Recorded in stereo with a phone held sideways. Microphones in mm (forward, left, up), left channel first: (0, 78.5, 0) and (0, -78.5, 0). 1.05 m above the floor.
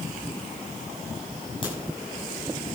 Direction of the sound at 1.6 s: 35° left (ahead or behind).